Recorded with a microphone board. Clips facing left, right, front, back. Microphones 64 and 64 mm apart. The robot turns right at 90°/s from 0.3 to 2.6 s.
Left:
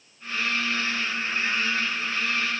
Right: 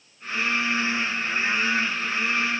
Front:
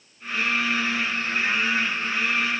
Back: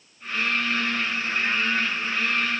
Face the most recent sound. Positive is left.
No sound to turn to.